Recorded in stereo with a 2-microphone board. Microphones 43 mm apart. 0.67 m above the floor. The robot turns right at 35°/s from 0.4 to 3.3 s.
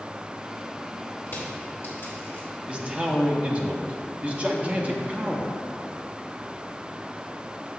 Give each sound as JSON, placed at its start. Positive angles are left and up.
{"t": 1.3, "sound": "crushing", "side_deg": 75, "distance_m": 2.5}
{"t": 2.7, "sound": "a man speaking", "side_deg": -25, "distance_m": 0.9}